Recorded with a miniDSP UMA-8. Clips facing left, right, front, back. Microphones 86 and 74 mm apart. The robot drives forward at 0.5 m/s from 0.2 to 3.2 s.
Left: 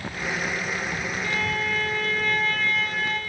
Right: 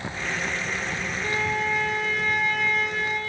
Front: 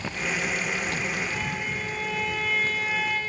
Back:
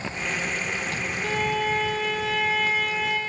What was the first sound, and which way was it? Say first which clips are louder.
A violin: right 3 dB, back 6 dB; 155° right.